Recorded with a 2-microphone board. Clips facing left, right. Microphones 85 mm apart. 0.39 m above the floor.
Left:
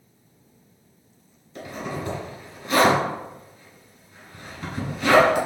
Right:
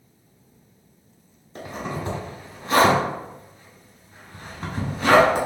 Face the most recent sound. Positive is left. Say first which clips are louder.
# right 1 dB
turn(degrees=-35)  # may be behind; listen again after turning